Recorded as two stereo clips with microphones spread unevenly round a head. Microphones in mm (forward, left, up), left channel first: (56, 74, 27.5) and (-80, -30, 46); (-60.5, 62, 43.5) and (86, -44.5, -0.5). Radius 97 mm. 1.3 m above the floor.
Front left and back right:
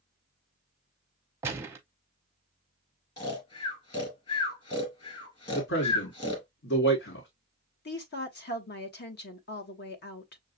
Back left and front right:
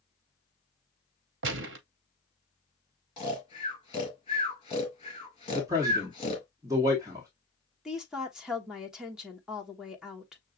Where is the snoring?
95° left, 2.0 m.